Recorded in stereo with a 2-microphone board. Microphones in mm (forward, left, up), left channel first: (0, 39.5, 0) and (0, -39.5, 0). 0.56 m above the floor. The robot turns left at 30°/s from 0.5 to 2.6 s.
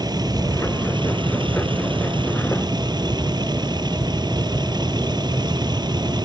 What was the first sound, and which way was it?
A vehicle, 55° right.